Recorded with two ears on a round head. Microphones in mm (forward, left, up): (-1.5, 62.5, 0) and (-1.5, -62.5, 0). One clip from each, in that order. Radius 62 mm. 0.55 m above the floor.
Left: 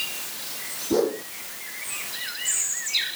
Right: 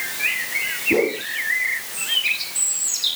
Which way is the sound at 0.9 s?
35° left (ahead or behind).